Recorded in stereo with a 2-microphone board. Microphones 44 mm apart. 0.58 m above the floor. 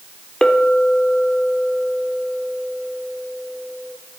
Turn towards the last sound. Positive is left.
turn(degrees=20)  # may be behind; listen again after turning